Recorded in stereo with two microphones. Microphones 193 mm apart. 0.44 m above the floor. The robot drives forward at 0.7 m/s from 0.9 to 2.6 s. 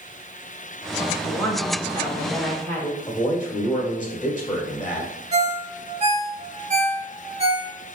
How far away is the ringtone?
About 0.8 m.